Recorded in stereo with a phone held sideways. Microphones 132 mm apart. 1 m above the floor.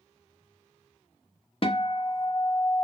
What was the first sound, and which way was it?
A guitar, 45° left (ahead or behind).